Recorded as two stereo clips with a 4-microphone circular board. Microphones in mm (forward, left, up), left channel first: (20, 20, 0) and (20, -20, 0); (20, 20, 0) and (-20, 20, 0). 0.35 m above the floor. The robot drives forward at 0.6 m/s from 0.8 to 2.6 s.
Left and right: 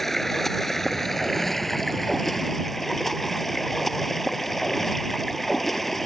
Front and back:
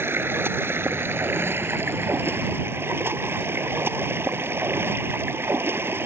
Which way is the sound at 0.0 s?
170° left.